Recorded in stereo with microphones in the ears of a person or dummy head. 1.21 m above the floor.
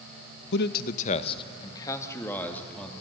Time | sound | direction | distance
0.5 | a man speaking | 65° left (ahead or behind) | 0.8 m